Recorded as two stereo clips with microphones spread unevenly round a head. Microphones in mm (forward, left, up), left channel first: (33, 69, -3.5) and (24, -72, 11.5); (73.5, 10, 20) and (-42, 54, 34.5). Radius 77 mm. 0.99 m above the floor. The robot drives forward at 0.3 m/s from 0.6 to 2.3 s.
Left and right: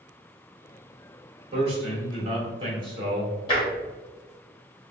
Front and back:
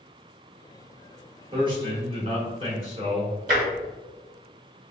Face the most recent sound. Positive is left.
turn(degrees=145)